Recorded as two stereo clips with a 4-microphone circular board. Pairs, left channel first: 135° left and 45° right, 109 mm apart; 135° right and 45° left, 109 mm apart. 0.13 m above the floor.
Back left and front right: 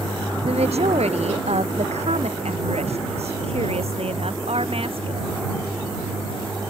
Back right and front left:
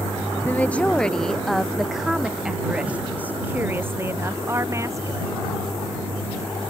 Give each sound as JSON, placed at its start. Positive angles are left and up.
{"t": 0.4, "sound": "a woman speaking", "azimuth_deg": -60}